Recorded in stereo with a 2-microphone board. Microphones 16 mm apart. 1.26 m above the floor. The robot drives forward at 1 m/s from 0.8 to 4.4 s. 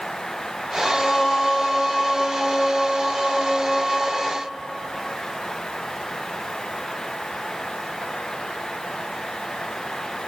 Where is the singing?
30° left (ahead or behind), 0.7 m; by 4.3 s 5° left (ahead or behind), 3 m.